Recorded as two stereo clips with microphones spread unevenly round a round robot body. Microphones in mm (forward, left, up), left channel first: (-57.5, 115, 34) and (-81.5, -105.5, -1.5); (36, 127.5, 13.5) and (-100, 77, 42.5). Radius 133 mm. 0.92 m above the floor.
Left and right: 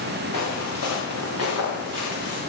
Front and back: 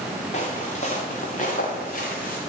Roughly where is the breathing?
I don't hear breathing.